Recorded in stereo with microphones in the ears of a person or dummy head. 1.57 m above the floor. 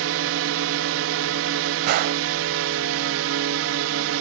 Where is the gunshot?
50° right (ahead or behind).